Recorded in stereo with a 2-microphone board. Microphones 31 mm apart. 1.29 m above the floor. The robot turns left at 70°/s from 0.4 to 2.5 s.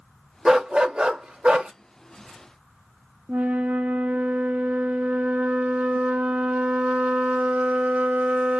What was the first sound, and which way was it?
A dog barking, 25° right.